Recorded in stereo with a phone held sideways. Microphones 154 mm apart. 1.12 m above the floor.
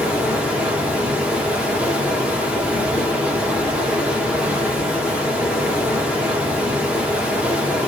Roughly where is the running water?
Centre.